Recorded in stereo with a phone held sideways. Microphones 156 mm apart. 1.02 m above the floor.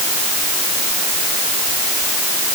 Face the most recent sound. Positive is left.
No sound to turn to.